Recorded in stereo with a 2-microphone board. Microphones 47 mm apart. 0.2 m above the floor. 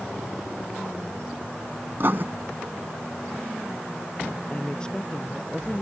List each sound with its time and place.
2.0 s writing: 50° right (ahead or behind)
4.5 s a woman speaking: 15° left (ahead or behind)